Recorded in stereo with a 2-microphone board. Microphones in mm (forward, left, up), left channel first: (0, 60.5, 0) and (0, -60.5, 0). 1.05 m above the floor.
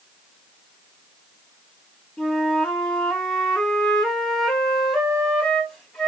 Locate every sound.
2.2 s a flute: 5° left (ahead or behind), 2 m